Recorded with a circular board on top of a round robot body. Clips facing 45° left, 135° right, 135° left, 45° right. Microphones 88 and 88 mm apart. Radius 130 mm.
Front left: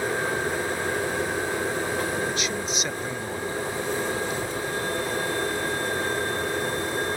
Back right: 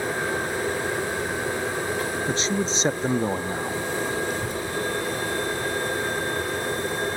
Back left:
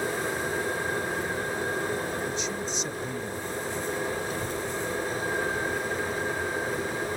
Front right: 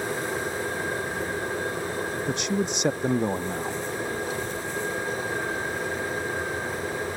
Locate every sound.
2.3 s a man speaking: 75° right
4.3 s a child speaking: 175° right